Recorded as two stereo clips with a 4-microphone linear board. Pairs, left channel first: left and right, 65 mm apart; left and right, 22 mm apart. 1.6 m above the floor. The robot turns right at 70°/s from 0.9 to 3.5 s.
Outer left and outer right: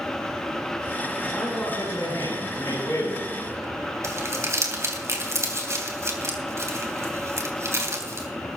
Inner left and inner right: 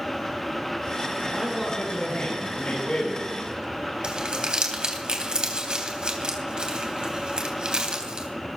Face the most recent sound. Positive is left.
turn(degrees=-45)  # may be behind; listen again after turning